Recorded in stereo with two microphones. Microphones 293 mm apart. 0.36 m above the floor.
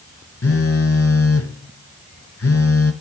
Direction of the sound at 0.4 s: 50° left (ahead or behind).